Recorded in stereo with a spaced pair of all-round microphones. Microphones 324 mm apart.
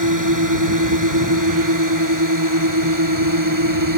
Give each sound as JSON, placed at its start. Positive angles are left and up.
{"t": 0.0, "sound": "a drone", "side_deg": -70}